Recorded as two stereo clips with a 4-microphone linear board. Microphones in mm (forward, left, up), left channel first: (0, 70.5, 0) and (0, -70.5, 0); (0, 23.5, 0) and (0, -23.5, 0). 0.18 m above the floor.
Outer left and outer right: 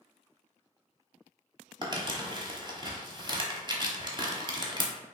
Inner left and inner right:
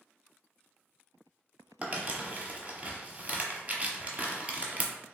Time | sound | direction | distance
1.8 | crumpling | 35° right (ahead or behind) | 0.6 m